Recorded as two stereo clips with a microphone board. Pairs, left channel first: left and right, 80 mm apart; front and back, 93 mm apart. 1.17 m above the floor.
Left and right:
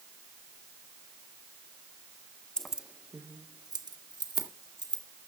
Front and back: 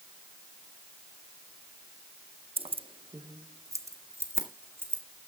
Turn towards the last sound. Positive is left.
turn(degrees=-115)